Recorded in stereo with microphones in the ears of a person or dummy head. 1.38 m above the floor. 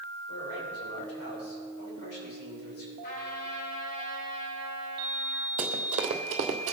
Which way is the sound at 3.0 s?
50° left (ahead or behind).